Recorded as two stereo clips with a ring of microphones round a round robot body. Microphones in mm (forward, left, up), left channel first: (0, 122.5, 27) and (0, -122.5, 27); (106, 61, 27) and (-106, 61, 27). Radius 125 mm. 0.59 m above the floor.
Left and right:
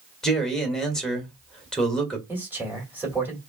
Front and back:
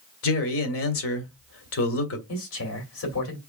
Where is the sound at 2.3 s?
10° right, 2.5 m.